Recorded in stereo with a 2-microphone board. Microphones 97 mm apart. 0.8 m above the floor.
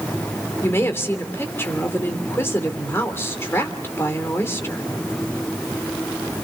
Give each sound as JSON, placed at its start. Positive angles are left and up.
{"t": 0.6, "sound": "a woman speaking", "side_deg": 25, "distance_m": 2.0}